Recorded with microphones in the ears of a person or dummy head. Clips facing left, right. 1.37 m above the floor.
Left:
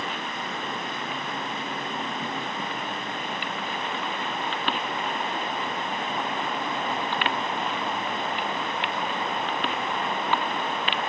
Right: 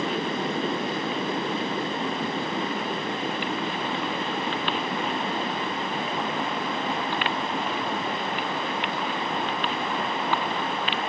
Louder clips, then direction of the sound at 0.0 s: Right 7 dB; 35° right (ahead or behind).